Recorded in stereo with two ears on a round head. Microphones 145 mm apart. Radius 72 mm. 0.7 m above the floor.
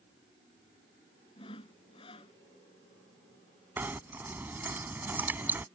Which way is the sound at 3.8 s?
10° right (ahead or behind).